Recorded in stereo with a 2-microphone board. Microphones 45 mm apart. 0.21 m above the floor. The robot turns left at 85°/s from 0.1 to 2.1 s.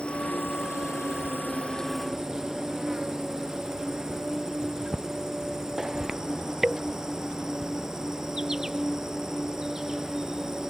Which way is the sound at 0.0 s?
160° left.